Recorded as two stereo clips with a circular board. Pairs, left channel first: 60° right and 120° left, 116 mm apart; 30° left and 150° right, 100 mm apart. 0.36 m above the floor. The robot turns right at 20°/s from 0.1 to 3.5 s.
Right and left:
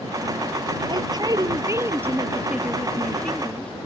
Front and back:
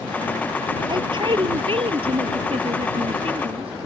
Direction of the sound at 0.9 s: 170° left.